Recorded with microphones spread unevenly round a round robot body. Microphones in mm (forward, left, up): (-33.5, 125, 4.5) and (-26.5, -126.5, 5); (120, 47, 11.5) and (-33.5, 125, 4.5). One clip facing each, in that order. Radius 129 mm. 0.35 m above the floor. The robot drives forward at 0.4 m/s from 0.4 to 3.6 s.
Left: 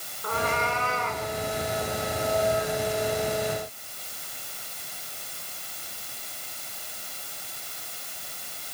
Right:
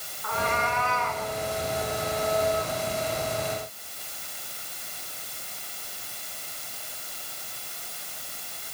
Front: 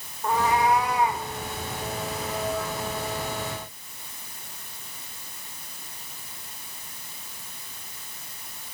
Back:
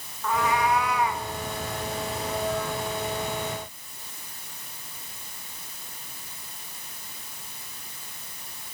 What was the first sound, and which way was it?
A cat meowing, 30° left.